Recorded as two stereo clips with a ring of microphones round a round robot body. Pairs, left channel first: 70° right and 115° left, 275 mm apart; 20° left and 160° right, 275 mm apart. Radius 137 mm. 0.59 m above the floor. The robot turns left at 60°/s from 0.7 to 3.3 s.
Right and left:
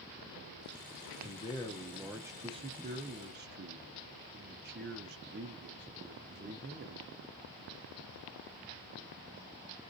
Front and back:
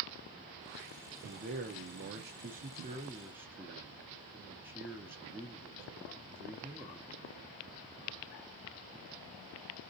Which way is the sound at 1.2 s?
110° right.